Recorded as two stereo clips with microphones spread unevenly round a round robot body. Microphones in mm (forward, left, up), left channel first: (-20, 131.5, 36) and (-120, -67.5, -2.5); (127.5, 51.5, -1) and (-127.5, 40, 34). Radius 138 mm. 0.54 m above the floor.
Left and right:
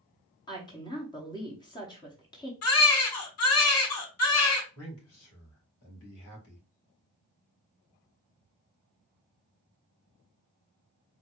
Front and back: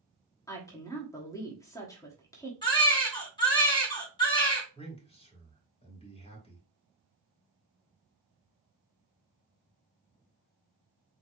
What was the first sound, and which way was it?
A woman speaking, straight ahead.